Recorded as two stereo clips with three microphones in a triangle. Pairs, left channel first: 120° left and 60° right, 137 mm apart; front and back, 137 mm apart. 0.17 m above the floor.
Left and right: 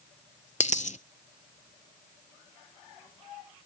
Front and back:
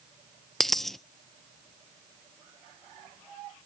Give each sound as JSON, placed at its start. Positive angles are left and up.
{"t": 0.6, "sound": "a dropped coin", "azimuth_deg": 85, "distance_m": 0.6}